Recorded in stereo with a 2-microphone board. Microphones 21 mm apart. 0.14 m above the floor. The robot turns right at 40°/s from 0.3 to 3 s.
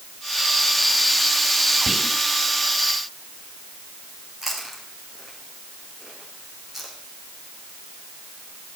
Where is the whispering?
5° right (ahead or behind), 2.5 m; by 2.2 s 5° left (ahead or behind), 2.5 m.